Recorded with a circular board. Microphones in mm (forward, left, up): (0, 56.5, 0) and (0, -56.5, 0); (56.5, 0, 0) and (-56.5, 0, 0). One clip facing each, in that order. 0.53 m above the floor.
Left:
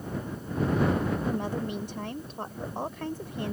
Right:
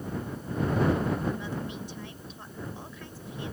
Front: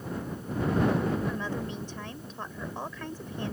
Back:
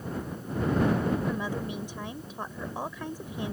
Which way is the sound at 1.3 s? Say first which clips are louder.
Left 3 dB, back 1 dB; 105° left.